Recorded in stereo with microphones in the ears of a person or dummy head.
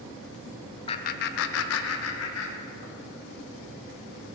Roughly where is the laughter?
Left.